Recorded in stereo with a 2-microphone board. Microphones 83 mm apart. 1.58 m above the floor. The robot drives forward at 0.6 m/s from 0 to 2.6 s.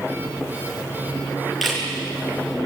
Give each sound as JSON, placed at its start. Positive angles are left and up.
{"t": 1.6, "sound": "a camera shutter", "side_deg": 0, "distance_m": 9.0}